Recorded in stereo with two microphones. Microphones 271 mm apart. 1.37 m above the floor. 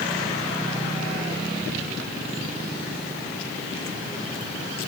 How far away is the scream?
No scream in this recording.